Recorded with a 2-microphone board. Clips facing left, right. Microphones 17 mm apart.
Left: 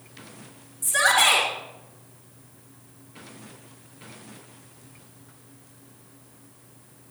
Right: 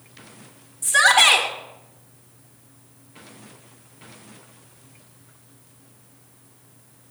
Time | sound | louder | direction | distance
0.8 | a shout | right 5 dB | 20° right (ahead or behind) | 1.9 m